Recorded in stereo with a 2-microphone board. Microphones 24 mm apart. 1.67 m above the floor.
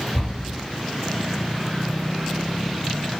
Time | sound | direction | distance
0.1 | a cupboard door | 45° left (ahead or behind) | 2.0 m